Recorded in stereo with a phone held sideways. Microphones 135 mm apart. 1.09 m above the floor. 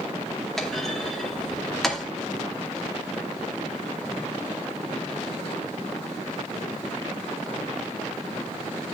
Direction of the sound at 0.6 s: Centre (ahead or behind).